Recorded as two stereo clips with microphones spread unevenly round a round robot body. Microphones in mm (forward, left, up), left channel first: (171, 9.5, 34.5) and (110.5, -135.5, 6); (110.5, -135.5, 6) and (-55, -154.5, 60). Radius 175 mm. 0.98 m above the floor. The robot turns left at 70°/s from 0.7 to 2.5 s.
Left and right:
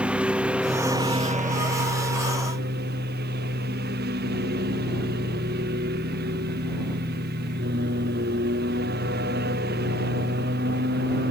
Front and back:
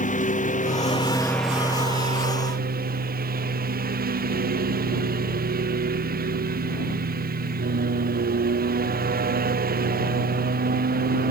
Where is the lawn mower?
30° right; by 11.3 s 155° right.